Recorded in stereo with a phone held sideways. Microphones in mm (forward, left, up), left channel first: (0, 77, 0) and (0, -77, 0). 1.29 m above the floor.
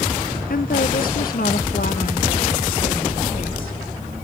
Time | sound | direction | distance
0.5 | a woman speaking | 70° left (ahead or behind) | 0.7 m